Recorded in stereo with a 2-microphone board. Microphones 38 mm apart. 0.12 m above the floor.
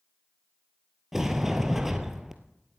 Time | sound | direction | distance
1.1 | a sliding door | 10° right (ahead or behind) | 1.1 m